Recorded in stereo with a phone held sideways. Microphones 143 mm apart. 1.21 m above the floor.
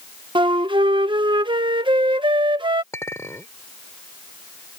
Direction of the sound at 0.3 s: 30° right (ahead or behind).